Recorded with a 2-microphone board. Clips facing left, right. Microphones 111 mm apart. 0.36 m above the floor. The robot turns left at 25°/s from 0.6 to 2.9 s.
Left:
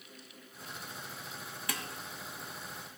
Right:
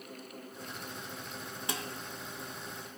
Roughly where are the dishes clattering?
Right.